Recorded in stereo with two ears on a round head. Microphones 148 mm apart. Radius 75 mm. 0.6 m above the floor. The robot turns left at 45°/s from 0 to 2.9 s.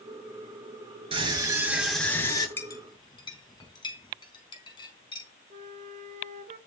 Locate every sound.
1.1 s a scream: 145° right, 9 m; by 2.5 s 155° left, 9 m
2.6 s a clink: 15° left (ahead or behind), 4 m; by 5.3 s 30° left (ahead or behind), 4 m
5.5 s a flute: 45° right (ahead or behind), 2 m